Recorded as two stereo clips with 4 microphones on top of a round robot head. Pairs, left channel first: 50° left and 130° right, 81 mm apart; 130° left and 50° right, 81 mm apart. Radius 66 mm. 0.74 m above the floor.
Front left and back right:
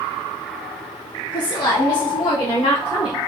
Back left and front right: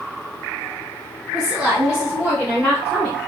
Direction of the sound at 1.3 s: 35° left.